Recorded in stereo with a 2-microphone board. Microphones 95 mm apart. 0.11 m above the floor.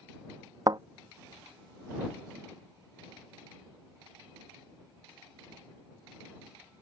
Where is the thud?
45° right (ahead or behind).